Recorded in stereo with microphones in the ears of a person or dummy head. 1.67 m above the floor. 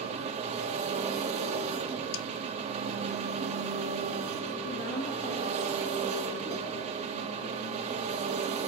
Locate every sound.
0.0 s an engine running: 35° right (ahead or behind), 1.7 m
2.1 s a snare drum: 65° left (ahead or behind), 0.6 m
4.6 s a woman speaking: 25° left (ahead or behind), 3.5 m